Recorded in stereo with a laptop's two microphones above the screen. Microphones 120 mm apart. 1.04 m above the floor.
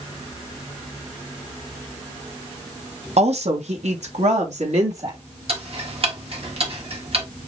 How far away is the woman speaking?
About 0.9 m.